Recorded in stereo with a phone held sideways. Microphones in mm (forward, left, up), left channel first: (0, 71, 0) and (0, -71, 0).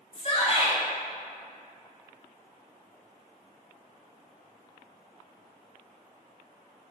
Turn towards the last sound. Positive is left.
turn(degrees=40)  # may be behind; listen again after turning